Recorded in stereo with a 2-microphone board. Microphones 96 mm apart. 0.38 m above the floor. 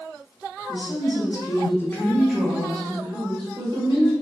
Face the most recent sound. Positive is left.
turn(degrees=-55)  # may be behind; listen again after turning